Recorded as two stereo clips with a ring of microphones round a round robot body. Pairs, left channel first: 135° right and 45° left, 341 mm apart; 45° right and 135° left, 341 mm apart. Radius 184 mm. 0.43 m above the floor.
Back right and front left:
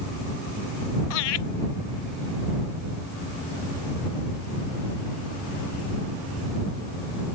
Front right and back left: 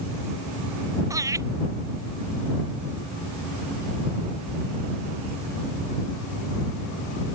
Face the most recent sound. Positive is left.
turn(degrees=-145)